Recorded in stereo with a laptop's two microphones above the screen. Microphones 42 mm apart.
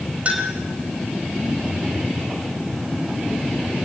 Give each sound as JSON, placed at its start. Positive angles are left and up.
{"t": 0.2, "sound": "a clink", "side_deg": -30, "distance_m": 3.5}